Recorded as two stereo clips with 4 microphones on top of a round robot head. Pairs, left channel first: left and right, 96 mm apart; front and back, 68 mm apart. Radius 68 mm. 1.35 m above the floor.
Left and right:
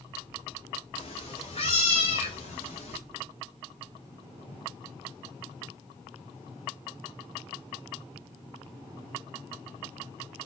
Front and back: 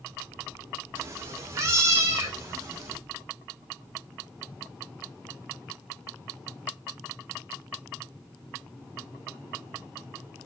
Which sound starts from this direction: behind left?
A cat meowing, at 0.9 s.